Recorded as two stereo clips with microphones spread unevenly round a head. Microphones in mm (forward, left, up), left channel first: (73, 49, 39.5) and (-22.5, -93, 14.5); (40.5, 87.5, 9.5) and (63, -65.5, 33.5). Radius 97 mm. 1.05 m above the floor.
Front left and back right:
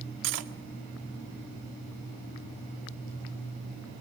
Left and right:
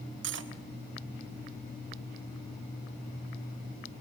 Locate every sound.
0.2 s cutlery clinking: 115° right, 1.5 m